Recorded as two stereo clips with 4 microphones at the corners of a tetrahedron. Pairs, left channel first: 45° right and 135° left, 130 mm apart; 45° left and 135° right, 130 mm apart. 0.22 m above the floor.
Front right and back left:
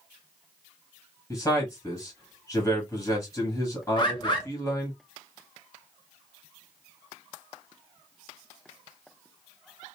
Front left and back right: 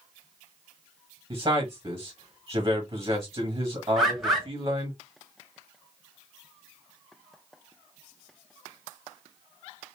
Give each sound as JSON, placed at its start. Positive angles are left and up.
{"t": 1.3, "sound": "a man speaking", "azimuth_deg": -90, "distance_m": 1.2}
{"t": 4.0, "sound": "a bird", "azimuth_deg": -45, "distance_m": 1.2}